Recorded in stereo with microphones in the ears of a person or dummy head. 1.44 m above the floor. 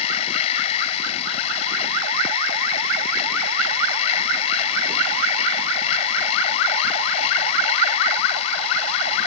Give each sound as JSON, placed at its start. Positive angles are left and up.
{"t": 0.0, "sound": "a machine running", "side_deg": 35}